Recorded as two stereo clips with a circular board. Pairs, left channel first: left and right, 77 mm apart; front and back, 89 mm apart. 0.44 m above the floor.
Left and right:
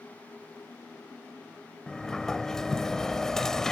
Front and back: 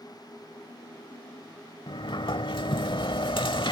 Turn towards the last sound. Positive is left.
turn(degrees=5)